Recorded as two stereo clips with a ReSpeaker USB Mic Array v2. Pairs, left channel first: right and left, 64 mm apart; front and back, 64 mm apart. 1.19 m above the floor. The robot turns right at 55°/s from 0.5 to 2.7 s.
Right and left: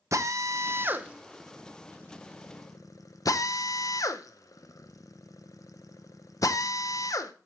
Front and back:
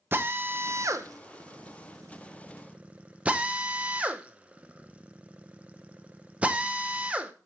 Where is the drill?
125° left, 0.8 m; by 7.3 s 110° right, 0.8 m.